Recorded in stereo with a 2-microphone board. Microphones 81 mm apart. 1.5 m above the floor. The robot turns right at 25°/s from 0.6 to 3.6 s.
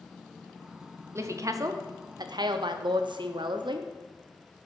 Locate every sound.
1.1 s a woman speaking: 145° right, 0.5 m; by 3.9 s 85° right, 0.5 m